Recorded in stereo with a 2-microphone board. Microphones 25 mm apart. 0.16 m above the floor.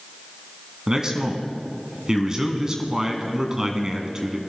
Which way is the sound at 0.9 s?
25° right (ahead or behind).